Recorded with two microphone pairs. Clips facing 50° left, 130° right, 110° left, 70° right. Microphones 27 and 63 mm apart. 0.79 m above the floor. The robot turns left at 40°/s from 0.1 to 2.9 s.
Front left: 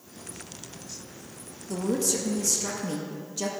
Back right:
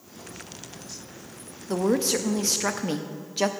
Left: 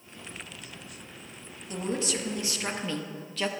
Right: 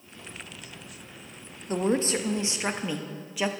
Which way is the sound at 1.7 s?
95° right.